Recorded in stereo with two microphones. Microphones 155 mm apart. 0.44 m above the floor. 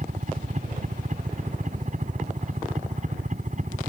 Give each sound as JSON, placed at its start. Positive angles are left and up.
{"t": 0.0, "sound": "a helicopter", "side_deg": -55}